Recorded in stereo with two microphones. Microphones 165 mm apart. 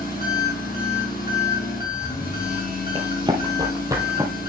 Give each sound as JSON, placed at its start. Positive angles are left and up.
{"t": 0.0, "sound": "an engine running", "side_deg": 60, "distance_m": 6.0}
{"t": 3.0, "sound": "running footsteps", "side_deg": -30, "distance_m": 1.7}